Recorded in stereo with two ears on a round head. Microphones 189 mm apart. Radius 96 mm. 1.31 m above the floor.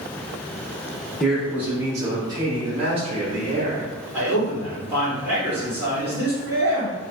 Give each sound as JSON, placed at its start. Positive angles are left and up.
{"t": 1.2, "sound": "a man speaking", "side_deg": 0, "distance_m": 1.1}
{"t": 4.1, "sound": "a man speaking", "side_deg": -10, "distance_m": 1.9}